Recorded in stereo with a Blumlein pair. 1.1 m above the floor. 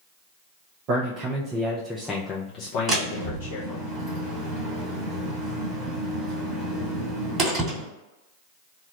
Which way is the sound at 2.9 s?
25° right.